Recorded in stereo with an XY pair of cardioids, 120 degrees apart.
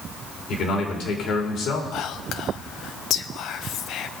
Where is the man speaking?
60° left, 3 m.